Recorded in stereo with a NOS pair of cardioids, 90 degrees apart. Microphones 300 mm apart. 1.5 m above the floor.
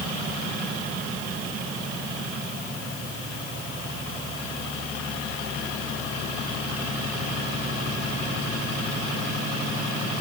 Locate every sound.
Only background noise.